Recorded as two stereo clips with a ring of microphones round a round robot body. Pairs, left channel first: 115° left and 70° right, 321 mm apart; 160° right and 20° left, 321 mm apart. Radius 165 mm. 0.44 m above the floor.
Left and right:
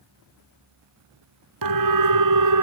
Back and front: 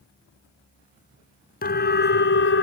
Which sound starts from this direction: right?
A siren, at 1.6 s.